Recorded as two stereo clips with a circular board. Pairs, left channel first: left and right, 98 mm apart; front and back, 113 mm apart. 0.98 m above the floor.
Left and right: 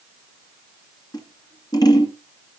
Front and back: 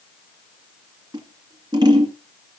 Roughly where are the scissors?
Behind left.